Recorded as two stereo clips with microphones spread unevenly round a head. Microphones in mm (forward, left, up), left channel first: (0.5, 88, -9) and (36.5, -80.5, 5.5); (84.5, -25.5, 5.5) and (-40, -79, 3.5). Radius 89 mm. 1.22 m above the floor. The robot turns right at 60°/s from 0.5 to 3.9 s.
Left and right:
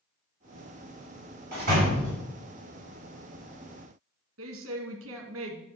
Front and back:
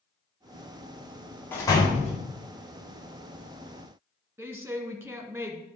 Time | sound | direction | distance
1.5 | a door slam | 50° right | 4 m
4.4 | a woman speaking | 85° right | 1.7 m